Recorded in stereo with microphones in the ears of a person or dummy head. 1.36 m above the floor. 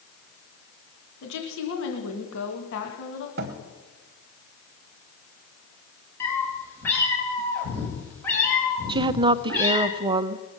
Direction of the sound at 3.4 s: 45° right (ahead or behind).